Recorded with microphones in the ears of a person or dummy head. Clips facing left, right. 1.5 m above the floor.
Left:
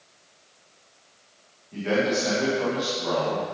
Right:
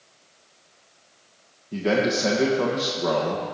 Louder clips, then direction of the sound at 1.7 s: Right 2 dB; 55° right (ahead or behind).